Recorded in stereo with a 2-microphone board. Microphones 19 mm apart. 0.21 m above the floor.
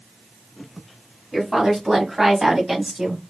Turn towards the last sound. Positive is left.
turn(degrees=-30)  # may be behind; listen again after turning